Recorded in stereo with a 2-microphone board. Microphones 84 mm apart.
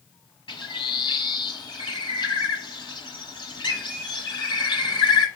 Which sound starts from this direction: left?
A bird, at 0.5 s.